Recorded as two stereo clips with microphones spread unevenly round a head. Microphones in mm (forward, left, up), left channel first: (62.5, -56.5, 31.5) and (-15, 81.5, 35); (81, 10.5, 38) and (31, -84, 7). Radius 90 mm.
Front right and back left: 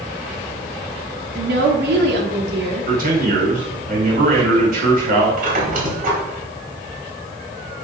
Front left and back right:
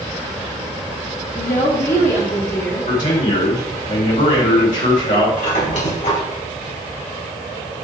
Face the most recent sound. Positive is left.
turn(degrees=85)